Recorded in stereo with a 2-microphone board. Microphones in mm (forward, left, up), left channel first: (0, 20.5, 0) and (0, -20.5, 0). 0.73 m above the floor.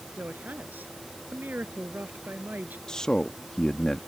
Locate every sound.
0.2 s a woman speaking: 50° right (ahead or behind)
2.9 s a man speaking: 20° left (ahead or behind)